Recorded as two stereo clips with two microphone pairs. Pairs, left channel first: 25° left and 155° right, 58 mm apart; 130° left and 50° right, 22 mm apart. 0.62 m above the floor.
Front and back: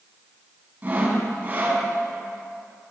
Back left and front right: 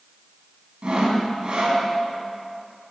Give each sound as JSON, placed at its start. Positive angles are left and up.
{"t": 0.8, "sound": "sawing", "azimuth_deg": -95, "distance_m": 3.5}